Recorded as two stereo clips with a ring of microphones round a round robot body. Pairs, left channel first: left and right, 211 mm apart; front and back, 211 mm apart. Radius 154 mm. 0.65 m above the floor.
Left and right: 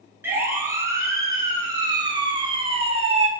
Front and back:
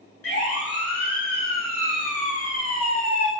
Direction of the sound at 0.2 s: 10° right.